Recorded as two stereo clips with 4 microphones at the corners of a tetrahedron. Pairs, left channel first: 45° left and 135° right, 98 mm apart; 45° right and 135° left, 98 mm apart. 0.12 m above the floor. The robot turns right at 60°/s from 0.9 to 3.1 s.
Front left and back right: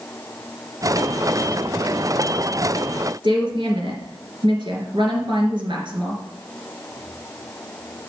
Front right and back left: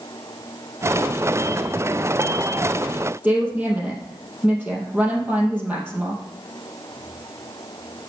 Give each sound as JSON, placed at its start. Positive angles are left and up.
{"t": 3.2, "sound": "a woman speaking", "azimuth_deg": -155, "distance_m": 3.0}